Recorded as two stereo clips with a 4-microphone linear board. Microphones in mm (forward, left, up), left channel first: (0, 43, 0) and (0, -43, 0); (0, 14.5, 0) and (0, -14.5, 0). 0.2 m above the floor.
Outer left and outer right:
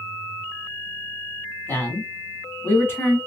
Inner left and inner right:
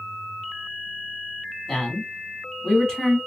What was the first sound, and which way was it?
A man speaking, 25° left (ahead or behind).